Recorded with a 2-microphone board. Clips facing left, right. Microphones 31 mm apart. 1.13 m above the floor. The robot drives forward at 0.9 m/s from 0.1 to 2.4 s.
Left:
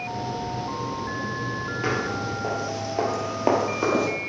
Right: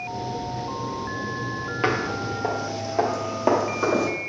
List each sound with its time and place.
1.8 s footsteps: 40° right (ahead or behind), 1.4 m; by 4.1 s 15° left (ahead or behind), 1.8 m